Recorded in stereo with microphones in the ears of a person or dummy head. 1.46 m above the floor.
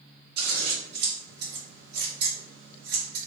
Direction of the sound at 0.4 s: 65° right (ahead or behind).